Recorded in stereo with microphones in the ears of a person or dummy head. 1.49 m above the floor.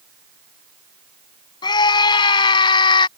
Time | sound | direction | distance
1.6 | a scream | 25° left (ahead or behind) | ?